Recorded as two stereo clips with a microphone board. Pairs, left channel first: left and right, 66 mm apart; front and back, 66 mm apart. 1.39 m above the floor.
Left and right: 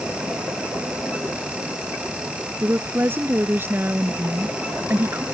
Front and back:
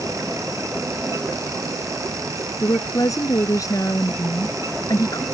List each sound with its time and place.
2.6 s a woman speaking: 30° right